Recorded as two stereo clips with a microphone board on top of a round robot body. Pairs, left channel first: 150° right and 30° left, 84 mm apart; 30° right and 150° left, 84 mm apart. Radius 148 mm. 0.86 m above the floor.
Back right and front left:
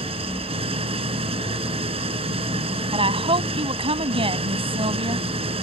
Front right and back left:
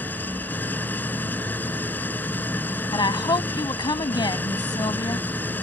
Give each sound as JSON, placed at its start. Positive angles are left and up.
{"t": 0.0, "sound": "an engine running", "azimuth_deg": 40}
{"t": 2.9, "sound": "a woman speaking", "azimuth_deg": 10}